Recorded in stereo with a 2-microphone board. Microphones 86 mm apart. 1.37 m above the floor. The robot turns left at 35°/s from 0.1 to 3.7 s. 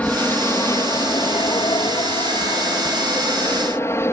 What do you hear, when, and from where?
0.0 s an aircraft: 160° left; by 4.1 s 35° left